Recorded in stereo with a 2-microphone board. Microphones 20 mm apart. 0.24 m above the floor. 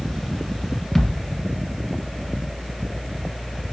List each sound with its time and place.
0.9 s a thud: 15° left (ahead or behind), 1.5 m